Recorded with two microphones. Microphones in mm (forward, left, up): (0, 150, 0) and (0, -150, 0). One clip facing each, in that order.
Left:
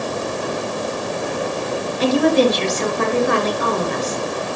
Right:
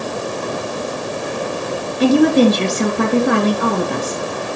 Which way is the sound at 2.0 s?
60° right (ahead or behind).